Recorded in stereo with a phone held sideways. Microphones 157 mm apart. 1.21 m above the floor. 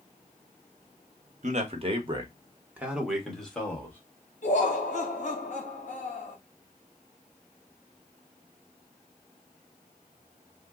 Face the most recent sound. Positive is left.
turn(degrees=55)  # may be behind; listen again after turning